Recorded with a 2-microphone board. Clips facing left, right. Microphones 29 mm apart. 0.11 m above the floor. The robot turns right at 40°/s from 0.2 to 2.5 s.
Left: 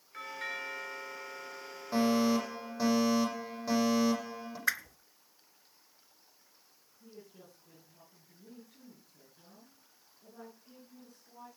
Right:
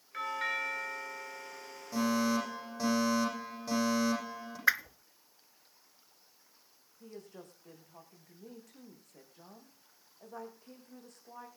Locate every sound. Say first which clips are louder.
0.1 s a doorbell: right 5 dB; 35° right, 2 m; by 2.9 s 55° left, 2 m
1.9 s a fire alarm: left 2 dB; 35° left (ahead or behind), 9 m; by 4.6 s 10° left (ahead or behind), 9 m
4.7 s a whoosh: right 5 dB; 20° right (ahead or behind), 0.6 m
7.0 s a woman speaking: right 4 dB; 75° right (ahead or behind), 7 m